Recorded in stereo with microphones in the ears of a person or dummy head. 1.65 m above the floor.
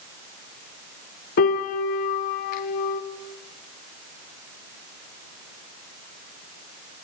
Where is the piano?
55° left (ahead or behind), 0.7 m.